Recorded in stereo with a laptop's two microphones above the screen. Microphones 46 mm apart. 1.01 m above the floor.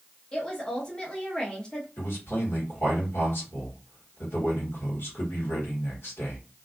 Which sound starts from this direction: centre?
A woman speaking, at 0.3 s.